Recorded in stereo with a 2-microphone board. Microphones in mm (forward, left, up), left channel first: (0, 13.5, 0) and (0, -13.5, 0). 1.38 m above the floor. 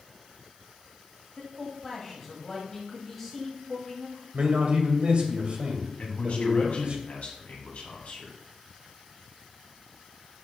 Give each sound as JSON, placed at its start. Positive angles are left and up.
{"t": 1.4, "sound": "a man speaking", "side_deg": 10, "distance_m": 1.6}
{"t": 4.3, "sound": "a man speaking", "side_deg": -50, "distance_m": 1.9}
{"t": 6.0, "sound": "a man speaking", "side_deg": 65, "distance_m": 2.0}